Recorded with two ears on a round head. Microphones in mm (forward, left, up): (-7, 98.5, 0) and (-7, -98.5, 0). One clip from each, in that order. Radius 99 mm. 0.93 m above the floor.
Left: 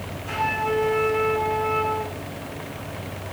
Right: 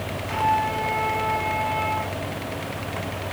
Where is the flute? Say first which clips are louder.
Right 2 dB; 10° left (ahead or behind), 7.5 m.